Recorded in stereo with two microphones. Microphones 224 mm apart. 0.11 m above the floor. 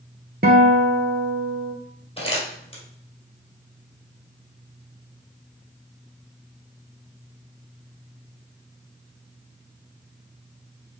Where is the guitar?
45° right (ahead or behind), 1.0 m.